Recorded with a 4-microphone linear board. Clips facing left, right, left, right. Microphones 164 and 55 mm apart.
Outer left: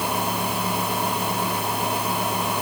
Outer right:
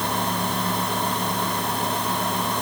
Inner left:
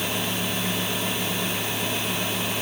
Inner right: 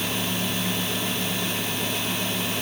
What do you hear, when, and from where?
Only background noise.